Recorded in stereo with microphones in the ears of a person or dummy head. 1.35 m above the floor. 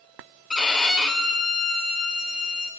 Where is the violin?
Centre (ahead or behind), 1.4 m.